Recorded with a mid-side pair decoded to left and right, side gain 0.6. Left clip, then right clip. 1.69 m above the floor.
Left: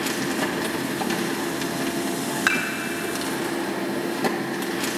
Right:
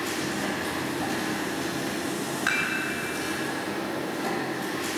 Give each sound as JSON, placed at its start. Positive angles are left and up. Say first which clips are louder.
{"t": 0.0, "sound": "a machine running", "louder": "left 4 dB", "azimuth_deg": 55, "distance_m": 1.7}
{"t": 2.5, "sound": "dishes clattering", "louder": "left 3 dB", "azimuth_deg": 40, "distance_m": 2.0}